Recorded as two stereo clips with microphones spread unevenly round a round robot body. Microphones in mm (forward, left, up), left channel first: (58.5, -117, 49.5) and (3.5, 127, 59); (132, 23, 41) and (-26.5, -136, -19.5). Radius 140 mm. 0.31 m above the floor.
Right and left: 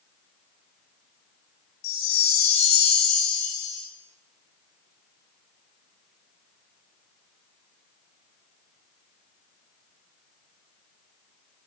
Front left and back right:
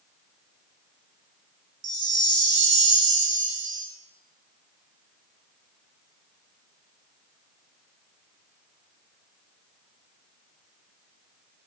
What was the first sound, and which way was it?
A chime, 100° right.